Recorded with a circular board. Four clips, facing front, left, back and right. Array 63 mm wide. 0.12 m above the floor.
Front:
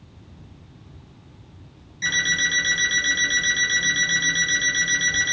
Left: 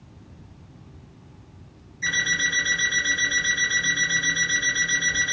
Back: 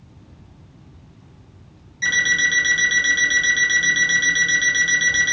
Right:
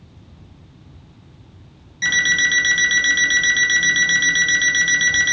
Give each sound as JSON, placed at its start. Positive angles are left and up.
{"t": 2.0, "sound": "an alarm clock", "azimuth_deg": -100, "distance_m": 1.6}